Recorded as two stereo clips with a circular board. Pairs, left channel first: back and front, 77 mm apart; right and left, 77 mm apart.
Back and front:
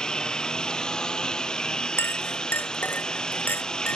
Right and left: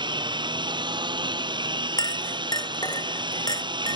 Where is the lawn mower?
100° left.